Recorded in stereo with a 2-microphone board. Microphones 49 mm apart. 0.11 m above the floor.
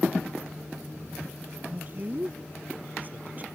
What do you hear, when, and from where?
1.7 s a man speaking: 35° right (ahead or behind)